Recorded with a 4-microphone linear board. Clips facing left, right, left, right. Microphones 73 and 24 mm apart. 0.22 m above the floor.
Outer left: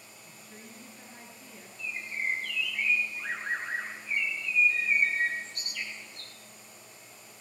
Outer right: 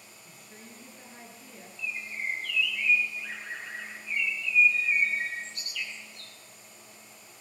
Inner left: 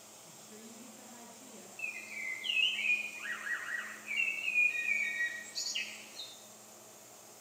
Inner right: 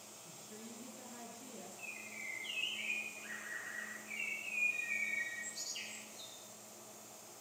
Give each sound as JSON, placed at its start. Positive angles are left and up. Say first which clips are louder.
{"t": 0.2, "sound": "a woman speaking", "louder": "even, inner right 1 dB", "side_deg": 0, "distance_m": 3.5}
{"t": 1.8, "sound": "a bird", "louder": "outer left 1 dB, inner left 8 dB", "side_deg": 50, "distance_m": 2.0}